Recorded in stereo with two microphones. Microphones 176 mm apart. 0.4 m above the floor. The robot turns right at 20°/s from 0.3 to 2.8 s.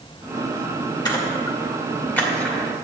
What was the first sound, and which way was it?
A splash, 20° left (ahead or behind).